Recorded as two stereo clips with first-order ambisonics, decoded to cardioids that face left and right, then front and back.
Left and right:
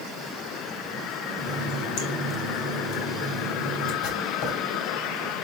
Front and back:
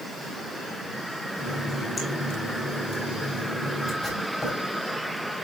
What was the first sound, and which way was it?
A running tap, 80° left.